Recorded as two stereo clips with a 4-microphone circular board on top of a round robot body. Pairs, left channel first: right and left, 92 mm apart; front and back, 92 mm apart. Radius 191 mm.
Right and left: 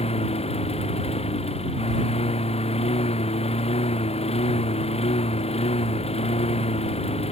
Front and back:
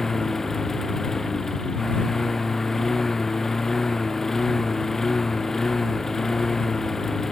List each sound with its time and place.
0.0 s a lawn mower: 85° right